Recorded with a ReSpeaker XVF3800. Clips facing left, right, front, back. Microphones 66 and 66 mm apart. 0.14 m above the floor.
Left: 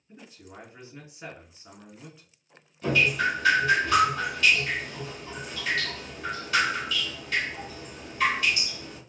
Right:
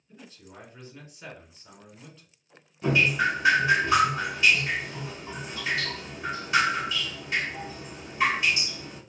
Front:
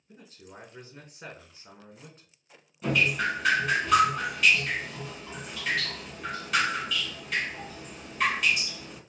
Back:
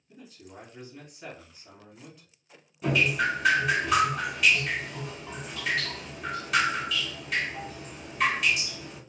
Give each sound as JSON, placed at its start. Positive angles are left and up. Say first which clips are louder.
{"t": 0.1, "sound": "a man speaking", "louder": "left 1 dB, back 1 dB", "azimuth_deg": 25, "distance_m": 1.6}
{"t": 2.8, "sound": "dripping", "louder": "right 1 dB, back 1 dB", "azimuth_deg": -100, "distance_m": 1.0}